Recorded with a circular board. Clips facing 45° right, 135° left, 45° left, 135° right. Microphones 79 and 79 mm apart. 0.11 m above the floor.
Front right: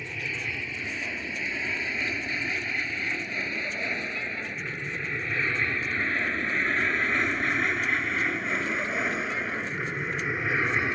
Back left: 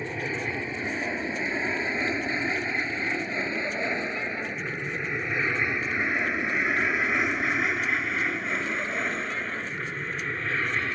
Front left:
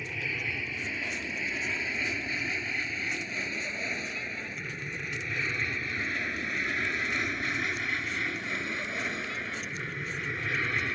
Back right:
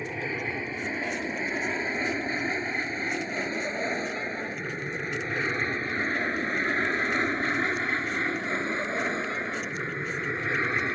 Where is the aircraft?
Straight behind; by 11.0 s 105° right.